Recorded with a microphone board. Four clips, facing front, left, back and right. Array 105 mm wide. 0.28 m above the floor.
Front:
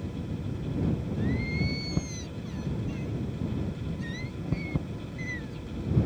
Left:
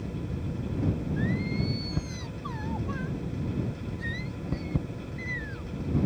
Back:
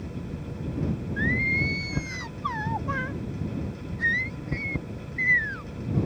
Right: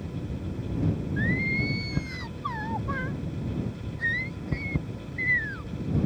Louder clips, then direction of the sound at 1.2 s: Right 1 dB, back 3 dB; 160° right.